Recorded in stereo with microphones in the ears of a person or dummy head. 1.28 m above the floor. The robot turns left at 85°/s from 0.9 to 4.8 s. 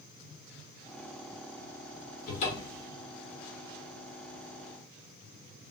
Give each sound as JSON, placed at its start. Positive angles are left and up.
{"t": 2.3, "sound": "a cupboard door", "azimuth_deg": 65, "distance_m": 1.1}